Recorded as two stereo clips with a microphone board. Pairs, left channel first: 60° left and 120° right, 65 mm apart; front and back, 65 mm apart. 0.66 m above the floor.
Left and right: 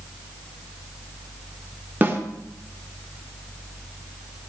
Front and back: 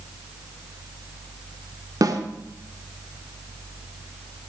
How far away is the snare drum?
About 1.5 m.